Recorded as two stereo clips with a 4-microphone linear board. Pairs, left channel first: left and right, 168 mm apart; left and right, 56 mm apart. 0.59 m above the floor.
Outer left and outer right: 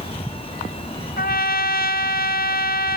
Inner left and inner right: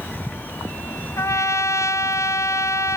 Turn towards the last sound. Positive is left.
turn(degrees=70)  # may be behind; listen again after turning